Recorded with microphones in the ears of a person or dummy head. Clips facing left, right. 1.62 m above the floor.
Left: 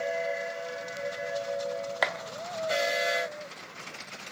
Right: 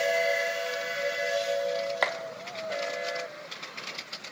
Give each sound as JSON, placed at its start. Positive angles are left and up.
{"t": 2.0, "sound": "a clap", "side_deg": 5, "distance_m": 1.2}